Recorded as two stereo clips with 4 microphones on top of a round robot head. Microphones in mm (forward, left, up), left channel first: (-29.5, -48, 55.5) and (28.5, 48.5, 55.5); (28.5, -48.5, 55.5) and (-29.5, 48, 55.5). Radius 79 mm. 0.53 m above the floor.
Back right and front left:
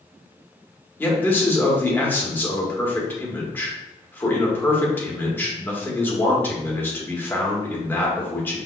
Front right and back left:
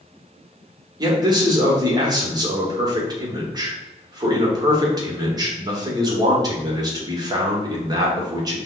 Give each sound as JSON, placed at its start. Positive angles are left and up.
{"t": 1.0, "sound": "a man speaking", "azimuth_deg": 170, "distance_m": 1.7}